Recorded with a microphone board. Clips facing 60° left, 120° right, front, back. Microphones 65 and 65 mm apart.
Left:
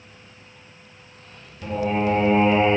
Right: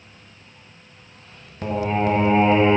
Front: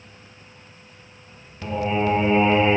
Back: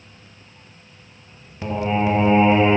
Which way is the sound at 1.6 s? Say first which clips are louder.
Right 1 dB, back 2 dB; 115° right.